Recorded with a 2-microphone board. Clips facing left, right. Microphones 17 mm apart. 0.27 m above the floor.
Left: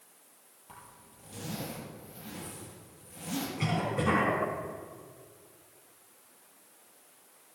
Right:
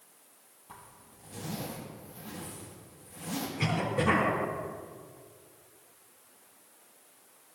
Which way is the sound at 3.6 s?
Centre (ahead or behind).